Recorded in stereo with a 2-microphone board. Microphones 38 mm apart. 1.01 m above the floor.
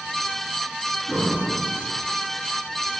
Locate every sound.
1.1 s breathing: 20° left (ahead or behind), 5.5 m